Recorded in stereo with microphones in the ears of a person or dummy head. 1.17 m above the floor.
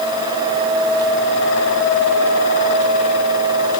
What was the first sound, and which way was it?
Only background noise.